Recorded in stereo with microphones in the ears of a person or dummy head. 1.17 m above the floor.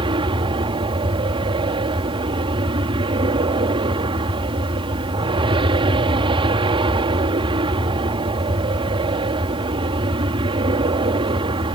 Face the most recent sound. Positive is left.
turn(degrees=-25)  # may be behind; listen again after turning